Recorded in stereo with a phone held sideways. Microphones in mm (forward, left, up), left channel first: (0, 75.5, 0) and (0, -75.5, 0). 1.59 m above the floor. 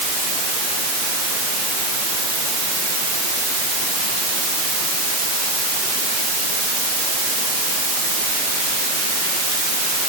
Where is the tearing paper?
No tearing paper in this recording.